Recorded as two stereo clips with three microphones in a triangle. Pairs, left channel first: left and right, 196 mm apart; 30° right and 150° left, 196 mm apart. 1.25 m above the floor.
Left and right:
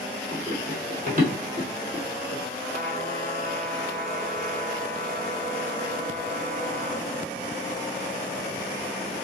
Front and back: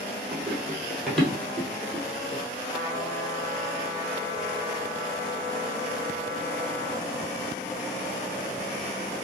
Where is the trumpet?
135° right, 3.5 m.